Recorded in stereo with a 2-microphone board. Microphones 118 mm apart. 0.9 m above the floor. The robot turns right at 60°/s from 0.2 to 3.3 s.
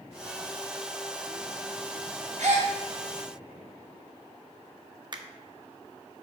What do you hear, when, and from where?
2.4 s a gasp: 65° right (ahead or behind), 2.5 m; by 2.7 s 80° right, 2.5 m
5.1 s a finger snap: 40° right (ahead or behind), 0.8 m